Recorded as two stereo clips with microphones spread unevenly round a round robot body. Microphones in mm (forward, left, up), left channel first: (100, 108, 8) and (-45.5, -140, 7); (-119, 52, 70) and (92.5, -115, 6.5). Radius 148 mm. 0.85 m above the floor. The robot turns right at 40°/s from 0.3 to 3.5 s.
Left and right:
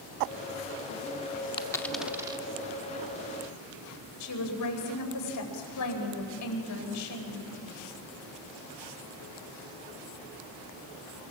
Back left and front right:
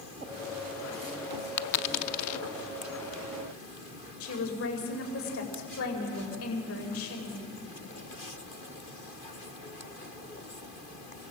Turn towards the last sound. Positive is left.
turn(degrees=95)